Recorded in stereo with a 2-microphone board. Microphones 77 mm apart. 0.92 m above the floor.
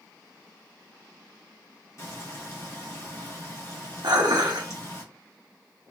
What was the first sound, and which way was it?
Frying, 40° left (ahead or behind).